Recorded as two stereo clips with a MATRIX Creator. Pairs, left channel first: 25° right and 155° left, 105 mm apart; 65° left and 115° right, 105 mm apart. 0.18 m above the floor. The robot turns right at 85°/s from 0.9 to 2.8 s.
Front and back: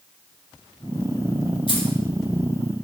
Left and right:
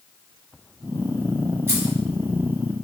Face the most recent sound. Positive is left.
turn(degrees=50)